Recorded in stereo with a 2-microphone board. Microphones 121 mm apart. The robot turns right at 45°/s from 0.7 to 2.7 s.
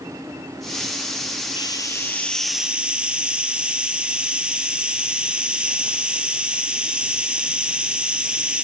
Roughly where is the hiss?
Behind left.